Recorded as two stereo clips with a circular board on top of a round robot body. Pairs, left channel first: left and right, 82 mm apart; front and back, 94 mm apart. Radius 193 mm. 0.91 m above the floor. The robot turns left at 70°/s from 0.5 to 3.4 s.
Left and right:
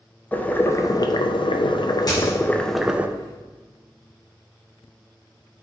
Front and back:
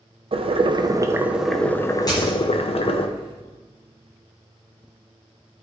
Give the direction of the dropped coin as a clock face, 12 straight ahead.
10 o'clock.